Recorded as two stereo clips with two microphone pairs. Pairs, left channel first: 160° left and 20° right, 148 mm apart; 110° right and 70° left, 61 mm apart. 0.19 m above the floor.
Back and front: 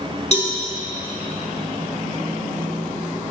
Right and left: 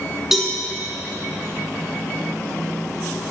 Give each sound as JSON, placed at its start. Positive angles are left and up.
{"t": 0.3, "sound": "a cowbell", "azimuth_deg": 150, "distance_m": 1.9}